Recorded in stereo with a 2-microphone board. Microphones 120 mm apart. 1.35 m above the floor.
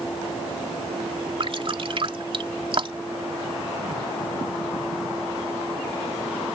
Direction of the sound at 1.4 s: 50° right (ahead or behind).